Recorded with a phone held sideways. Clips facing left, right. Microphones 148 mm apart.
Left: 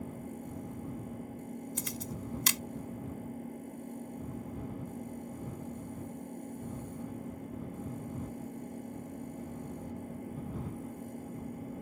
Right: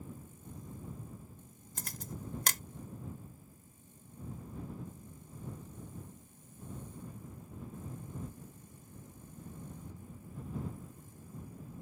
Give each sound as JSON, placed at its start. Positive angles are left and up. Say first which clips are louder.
{"t": 0.0, "sound": "an engine running", "louder": "left 9 dB", "side_deg": 75}
{"t": 1.8, "sound": "a camera shutter", "louder": "left 6 dB", "side_deg": -50}